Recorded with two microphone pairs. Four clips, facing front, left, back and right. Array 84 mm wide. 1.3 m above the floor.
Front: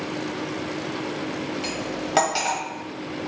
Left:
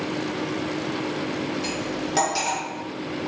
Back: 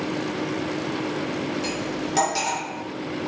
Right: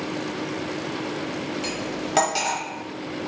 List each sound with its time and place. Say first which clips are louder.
1.6 s cutlery clinking: left 1 dB, back 1 dB; 25° right, 1.0 m